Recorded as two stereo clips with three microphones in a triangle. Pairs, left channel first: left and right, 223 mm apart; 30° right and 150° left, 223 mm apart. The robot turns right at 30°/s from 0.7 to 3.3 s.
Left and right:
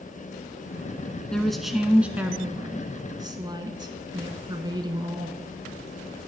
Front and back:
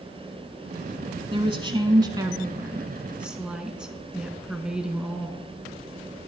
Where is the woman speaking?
170° left, 1.1 m; by 5.5 s 130° right, 1.1 m.